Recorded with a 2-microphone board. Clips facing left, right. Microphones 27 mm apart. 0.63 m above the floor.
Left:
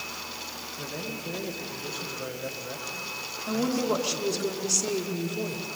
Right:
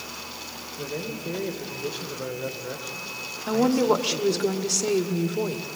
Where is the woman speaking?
40° right (ahead or behind), 2.0 m.